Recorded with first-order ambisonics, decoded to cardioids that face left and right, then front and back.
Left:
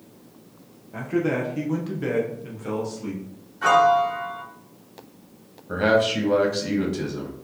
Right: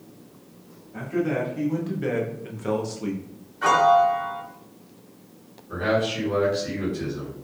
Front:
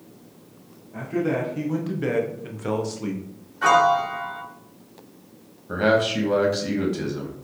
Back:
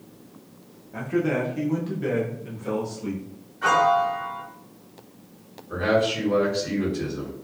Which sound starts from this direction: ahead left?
A man speaking, at 5.7 s.